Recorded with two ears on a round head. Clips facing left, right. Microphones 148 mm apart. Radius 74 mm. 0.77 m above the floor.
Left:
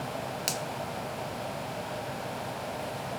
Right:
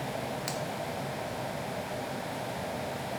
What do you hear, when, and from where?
0.5 s a finger snap: 35° left (ahead or behind), 1.0 m